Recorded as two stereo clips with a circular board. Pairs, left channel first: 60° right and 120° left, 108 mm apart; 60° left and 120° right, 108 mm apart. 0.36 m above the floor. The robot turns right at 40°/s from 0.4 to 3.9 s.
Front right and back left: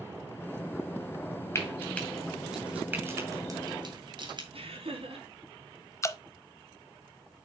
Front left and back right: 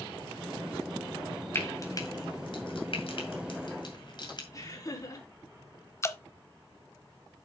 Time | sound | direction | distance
1.6 | frying | straight ahead | 2.5 m
4.5 | laughter | 115° left | 4.5 m
6.0 | dripping | straight ahead | 0.6 m